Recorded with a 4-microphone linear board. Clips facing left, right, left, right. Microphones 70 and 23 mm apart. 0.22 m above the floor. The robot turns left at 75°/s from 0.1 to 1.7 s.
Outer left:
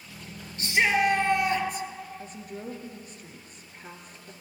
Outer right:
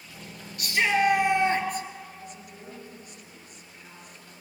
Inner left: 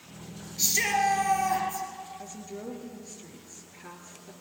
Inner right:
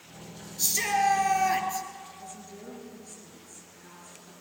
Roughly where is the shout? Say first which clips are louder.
Even, even; ahead left.